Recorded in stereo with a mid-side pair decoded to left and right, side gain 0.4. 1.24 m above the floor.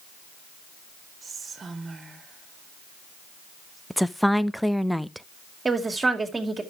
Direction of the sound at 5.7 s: 30° right.